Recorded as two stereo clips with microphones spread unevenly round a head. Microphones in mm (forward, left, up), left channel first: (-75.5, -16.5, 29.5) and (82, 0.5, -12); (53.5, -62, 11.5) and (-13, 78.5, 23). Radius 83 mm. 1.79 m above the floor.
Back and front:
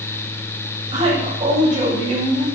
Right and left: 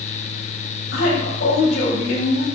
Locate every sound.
0.9 s a woman speaking: 50° right, 9 m